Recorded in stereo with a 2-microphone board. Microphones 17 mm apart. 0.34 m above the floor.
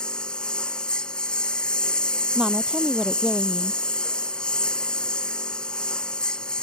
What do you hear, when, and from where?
0.0 s a lawn mower: 65° left (ahead or behind)
2.4 s a woman speaking: 50° right (ahead or behind)